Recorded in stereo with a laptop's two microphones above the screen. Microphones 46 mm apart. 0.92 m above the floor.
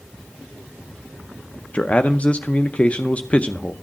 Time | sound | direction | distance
1.7 | a man speaking | 30° left (ahead or behind) | 0.6 m